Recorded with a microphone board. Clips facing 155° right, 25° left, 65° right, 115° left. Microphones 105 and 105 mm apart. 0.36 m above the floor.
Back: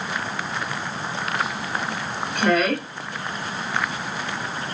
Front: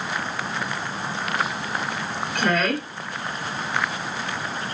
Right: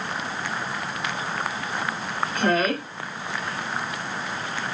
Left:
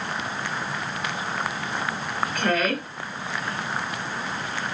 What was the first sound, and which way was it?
A woman speaking, 80° right.